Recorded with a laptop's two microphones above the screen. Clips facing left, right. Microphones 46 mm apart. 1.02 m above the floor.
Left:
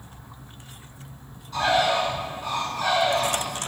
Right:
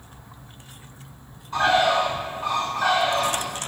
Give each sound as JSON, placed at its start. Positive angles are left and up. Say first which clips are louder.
{"t": 1.5, "sound": "a bird", "louder": "right 2 dB", "side_deg": -35, "distance_m": 4.0}